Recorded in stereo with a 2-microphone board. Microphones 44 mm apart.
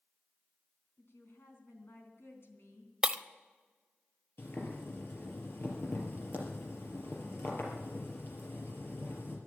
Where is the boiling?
55° left (ahead or behind), 4.5 m.